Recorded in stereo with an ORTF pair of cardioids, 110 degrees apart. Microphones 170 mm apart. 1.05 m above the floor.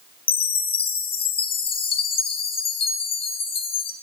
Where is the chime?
35° left, 0.5 m.